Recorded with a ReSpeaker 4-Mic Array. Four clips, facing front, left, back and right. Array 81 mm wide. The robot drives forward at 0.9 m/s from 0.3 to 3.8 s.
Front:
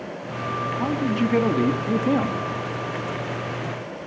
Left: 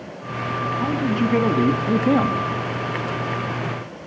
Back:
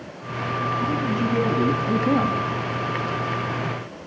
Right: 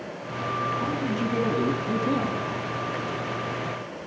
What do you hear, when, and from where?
0.8 s a man speaking: 30° left, 1.7 m; by 2.4 s 100° left, 1.2 m